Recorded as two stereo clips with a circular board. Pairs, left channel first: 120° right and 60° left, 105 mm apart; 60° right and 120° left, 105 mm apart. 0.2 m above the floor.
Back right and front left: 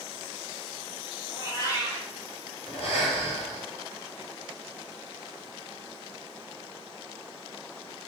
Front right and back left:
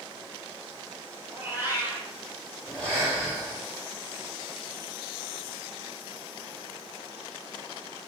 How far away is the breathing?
About 2.5 m.